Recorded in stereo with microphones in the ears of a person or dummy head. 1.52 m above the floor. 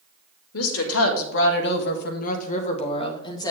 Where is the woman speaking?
85° left, 2 m; by 3.5 s 20° left (ahead or behind), 2 m.